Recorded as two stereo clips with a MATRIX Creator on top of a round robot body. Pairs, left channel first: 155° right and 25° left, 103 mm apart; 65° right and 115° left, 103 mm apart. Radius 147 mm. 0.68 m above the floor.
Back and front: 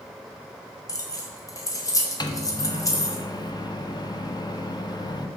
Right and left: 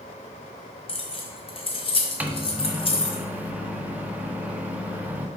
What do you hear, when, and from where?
0.9 s keys jangling: 100° right, 1.7 m
2.2 s a microwave: straight behind, 1.0 m